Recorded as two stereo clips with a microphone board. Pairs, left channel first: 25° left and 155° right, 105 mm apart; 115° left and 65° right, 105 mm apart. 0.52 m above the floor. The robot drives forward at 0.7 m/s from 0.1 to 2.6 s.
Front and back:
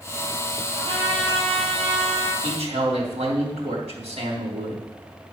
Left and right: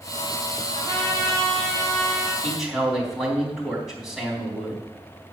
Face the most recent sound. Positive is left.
turn(degrees=-155)